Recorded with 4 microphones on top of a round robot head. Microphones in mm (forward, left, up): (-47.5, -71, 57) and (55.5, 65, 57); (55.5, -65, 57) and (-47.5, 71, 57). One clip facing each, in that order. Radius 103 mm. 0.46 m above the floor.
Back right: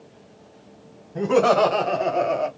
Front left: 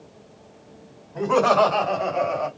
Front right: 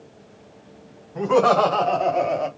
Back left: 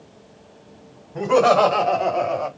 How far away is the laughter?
About 1.9 m.